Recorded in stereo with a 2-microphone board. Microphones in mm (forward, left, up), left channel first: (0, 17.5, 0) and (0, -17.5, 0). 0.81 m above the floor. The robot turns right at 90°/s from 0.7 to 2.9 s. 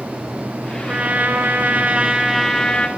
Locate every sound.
0.9 s a trumpet: 155° right, 2 m; by 2.9 s 30° left, 2 m